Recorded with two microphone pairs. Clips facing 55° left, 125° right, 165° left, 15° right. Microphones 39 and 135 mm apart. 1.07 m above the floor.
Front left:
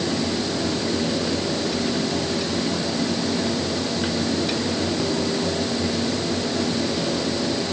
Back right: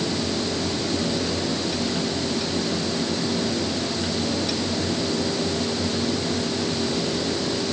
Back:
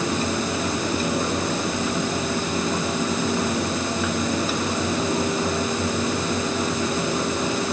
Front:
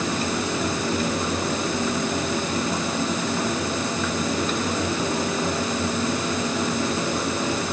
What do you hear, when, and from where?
Only background noise.